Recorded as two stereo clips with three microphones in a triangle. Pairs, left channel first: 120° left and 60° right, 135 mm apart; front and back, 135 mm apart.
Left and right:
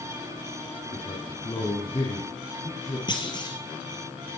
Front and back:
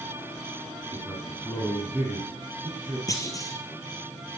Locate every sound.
0.9 s a man speaking: 80° left, 4 m
3.1 s a clunk: 65° left, 1.8 m